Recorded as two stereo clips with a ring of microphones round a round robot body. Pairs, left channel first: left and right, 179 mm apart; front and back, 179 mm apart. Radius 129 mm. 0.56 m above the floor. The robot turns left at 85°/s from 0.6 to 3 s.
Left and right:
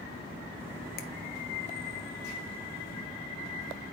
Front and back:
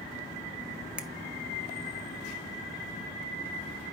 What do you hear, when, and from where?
1.0 s a finger snap: 100° left, 0.9 m; by 1.1 s 90° left, 0.9 m